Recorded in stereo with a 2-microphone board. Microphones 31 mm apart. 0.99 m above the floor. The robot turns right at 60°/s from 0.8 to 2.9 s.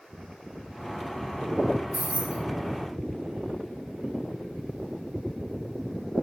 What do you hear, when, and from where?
1.9 s keys jangling: 70° right (ahead or behind), 3 m; by 2.4 s 80° right, 3 m